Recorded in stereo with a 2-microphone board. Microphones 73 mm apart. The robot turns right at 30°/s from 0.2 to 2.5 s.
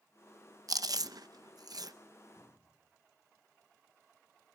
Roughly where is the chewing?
Right.